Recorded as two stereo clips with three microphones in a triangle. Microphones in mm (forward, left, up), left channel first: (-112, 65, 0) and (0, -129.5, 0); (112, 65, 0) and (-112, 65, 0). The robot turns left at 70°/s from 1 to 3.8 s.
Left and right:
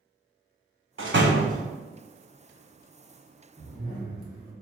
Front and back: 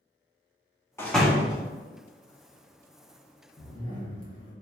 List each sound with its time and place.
1.0 s a door slam: 75° right, 0.7 m; by 1.6 s 120° right, 0.7 m
3.6 s a zipper: 45° left, 1.3 m; by 4.5 s 30° left, 1.3 m